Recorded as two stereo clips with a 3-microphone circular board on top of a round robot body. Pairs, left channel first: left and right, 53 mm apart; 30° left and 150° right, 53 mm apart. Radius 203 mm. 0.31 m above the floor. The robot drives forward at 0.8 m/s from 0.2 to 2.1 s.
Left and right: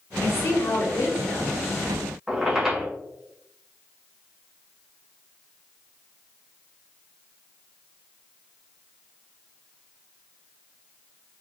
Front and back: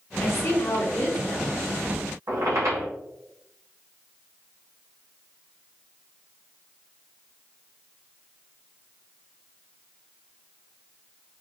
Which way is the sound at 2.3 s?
170° right.